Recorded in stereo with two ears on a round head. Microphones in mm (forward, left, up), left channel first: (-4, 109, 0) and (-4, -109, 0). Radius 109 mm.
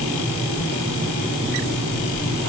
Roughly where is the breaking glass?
I don't hear breaking glass.